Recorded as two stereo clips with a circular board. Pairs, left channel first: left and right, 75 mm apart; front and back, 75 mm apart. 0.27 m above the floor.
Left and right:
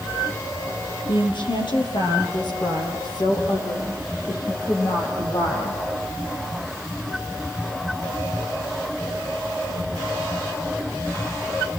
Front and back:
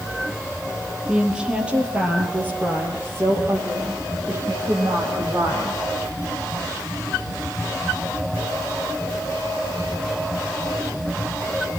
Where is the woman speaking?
100° left, 6 m; by 5.8 s 130° left, 10 m.